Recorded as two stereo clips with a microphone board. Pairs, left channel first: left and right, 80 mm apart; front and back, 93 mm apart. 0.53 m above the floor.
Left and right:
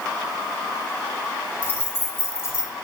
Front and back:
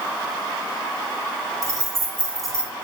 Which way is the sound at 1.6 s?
145° left.